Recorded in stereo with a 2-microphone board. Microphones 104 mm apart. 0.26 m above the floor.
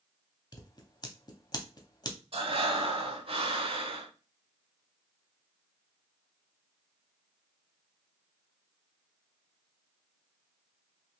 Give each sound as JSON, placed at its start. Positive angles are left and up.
{"t": 0.5, "sound": "scissors", "side_deg": 40, "distance_m": 0.7}
{"t": 2.3, "sound": "breathing", "side_deg": -60, "distance_m": 0.7}